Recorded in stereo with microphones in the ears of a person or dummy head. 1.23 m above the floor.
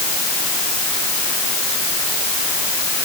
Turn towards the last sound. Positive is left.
No sound to turn to.